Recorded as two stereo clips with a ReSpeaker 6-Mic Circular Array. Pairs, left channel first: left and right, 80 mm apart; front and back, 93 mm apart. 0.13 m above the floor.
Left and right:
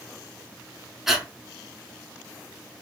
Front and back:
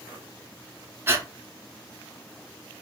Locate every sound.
1.1 s breathing: 170° right, 0.5 m